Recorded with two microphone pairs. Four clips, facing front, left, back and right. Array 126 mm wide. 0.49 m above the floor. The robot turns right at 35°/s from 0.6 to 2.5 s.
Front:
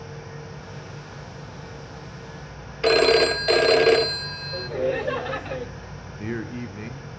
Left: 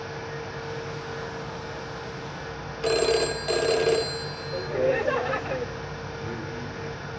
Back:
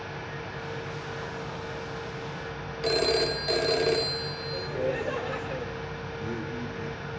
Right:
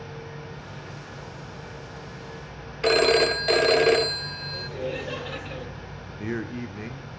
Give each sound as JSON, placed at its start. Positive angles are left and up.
{"t": 2.8, "sound": "a phone ringing", "azimuth_deg": 5, "distance_m": 0.8}
{"t": 4.5, "sound": "laughter", "azimuth_deg": 60, "distance_m": 1.9}
{"t": 6.2, "sound": "a man speaking", "azimuth_deg": -45, "distance_m": 1.3}